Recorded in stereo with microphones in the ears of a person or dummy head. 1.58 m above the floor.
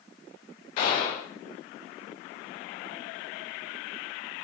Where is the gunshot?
40° left (ahead or behind), 2 m.